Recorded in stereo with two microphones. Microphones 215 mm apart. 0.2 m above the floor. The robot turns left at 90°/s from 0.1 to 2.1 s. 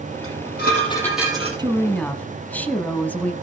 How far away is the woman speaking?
About 1.3 m.